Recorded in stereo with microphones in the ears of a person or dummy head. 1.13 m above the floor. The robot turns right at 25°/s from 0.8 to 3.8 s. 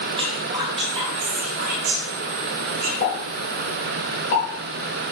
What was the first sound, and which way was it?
Whispering, 25° right (ahead or behind).